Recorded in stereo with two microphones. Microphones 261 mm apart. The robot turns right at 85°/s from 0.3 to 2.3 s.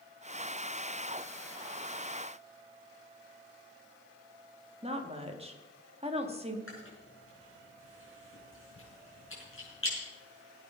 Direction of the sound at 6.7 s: 55° left (ahead or behind).